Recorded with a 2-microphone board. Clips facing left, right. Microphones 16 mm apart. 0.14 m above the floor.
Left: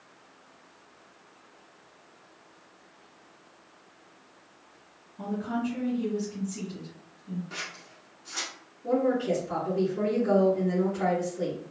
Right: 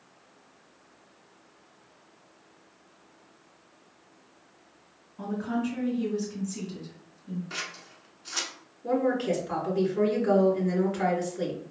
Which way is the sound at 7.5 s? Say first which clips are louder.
Right 2 dB; 30° right (ahead or behind).